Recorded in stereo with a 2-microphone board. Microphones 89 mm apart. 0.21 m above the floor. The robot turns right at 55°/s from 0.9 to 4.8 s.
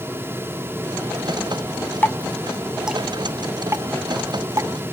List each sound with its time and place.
2.0 s dripping: 25° left (ahead or behind); by 4.7 s 35° right (ahead or behind)